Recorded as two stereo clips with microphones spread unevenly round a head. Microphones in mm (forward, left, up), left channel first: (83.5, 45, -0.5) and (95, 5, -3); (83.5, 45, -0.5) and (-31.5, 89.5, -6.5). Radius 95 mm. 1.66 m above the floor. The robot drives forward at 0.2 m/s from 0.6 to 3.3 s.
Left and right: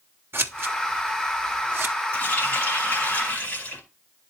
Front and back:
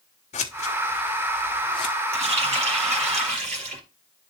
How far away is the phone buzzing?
I don't hear a phone buzzing.